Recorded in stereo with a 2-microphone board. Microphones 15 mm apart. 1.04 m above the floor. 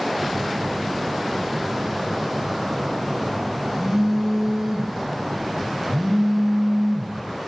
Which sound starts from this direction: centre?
A phone buzzing, at 0.2 s.